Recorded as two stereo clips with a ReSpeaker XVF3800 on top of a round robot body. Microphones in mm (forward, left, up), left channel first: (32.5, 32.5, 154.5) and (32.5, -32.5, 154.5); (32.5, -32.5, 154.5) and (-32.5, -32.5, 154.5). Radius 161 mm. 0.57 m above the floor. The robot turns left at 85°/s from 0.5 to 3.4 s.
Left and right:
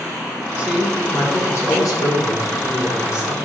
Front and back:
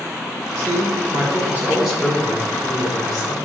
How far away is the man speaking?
About 2.5 m.